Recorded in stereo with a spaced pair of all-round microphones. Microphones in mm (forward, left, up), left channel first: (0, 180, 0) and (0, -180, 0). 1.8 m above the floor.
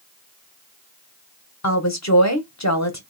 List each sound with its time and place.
1.6 s a woman speaking: 50° left (ahead or behind), 1.3 m